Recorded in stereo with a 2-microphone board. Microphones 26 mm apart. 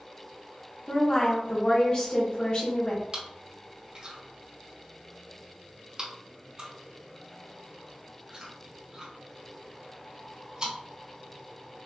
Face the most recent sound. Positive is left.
turn(degrees=-40)  # may be behind; listen again after turning